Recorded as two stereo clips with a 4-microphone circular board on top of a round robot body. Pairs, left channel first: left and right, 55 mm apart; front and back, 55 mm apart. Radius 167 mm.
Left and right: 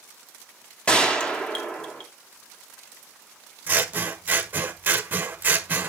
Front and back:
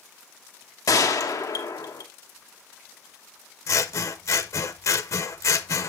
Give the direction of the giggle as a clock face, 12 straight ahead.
No giggle in this recording.